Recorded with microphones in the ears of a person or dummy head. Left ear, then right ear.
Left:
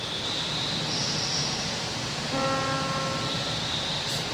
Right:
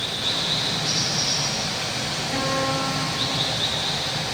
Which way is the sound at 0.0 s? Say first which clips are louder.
Right 5 dB; 60° right (ahead or behind).